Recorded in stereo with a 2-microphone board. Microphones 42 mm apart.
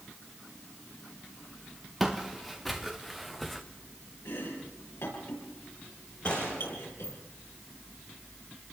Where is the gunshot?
25° left (ahead or behind), 7 m.